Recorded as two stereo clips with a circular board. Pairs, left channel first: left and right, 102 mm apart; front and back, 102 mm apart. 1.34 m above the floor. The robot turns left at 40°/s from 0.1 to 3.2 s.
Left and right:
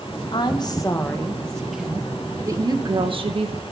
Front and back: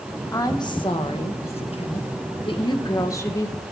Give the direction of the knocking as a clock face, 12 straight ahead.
I don't hear knocking.